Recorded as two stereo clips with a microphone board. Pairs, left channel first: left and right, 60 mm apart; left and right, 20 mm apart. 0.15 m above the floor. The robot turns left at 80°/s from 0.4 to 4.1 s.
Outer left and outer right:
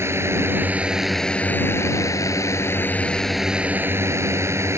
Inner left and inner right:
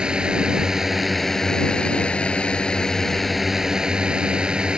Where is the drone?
125° right; by 4.8 s 60° right.